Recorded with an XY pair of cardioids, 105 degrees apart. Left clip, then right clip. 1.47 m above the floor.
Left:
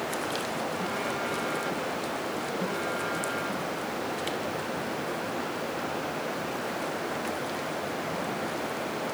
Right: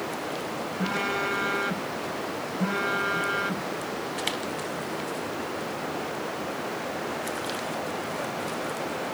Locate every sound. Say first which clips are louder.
0.8 s a phone buzzing: right 3 dB; 50° right